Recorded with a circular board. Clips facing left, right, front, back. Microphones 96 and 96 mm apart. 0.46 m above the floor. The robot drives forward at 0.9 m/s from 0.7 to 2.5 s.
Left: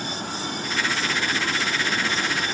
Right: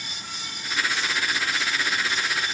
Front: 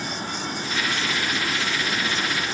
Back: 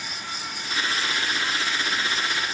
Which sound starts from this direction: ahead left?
Running water, at 0.0 s.